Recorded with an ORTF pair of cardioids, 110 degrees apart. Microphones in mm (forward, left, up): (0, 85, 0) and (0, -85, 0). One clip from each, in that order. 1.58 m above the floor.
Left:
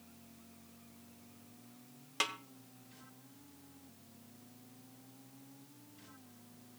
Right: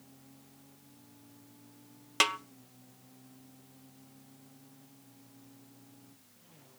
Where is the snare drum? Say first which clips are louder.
Right 9 dB; 35° right, 0.7 m.